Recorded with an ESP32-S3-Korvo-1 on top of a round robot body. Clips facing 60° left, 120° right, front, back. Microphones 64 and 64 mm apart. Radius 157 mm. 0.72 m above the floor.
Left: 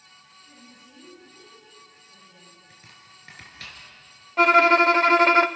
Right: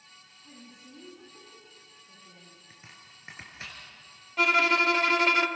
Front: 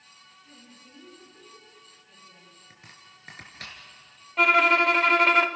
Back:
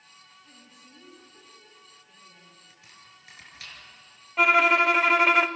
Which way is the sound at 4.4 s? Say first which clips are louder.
Left 8 dB, even; 95° left.